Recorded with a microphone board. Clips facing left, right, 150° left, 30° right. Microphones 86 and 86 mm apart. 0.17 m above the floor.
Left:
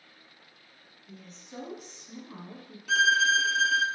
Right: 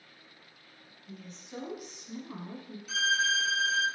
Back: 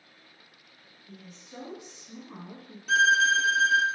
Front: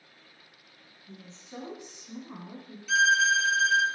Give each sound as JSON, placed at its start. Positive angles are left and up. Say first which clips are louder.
{"t": 1.1, "sound": "a woman speaking", "louder": "right 2 dB, front 1 dB", "azimuth_deg": 5, "distance_m": 1.3}
{"t": 2.9, "sound": "a violin", "louder": "left 6 dB, back 1 dB", "azimuth_deg": 110, "distance_m": 0.6}